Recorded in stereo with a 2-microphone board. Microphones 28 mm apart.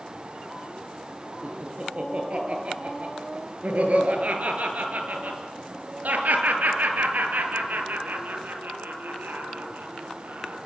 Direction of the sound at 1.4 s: 30° right (ahead or behind).